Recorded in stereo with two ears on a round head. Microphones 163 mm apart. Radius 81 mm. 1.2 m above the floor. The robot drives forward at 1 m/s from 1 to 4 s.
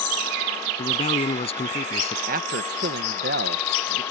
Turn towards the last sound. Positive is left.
turn(degrees=-45)  # may be behind; listen again after turning